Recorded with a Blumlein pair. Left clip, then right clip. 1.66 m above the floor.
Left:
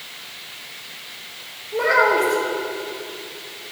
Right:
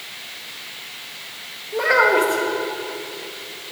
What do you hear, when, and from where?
1.7 s a child speaking: 5° right, 1.5 m